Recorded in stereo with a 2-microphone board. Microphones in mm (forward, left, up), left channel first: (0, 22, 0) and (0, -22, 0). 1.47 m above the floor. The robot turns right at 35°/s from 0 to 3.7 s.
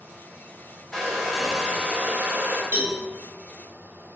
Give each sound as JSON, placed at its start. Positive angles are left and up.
{"t": 0.9, "sound": "a hair dryer", "azimuth_deg": 170, "distance_m": 0.6}
{"t": 2.7, "sound": "a cowbell", "side_deg": -75, "distance_m": 1.1}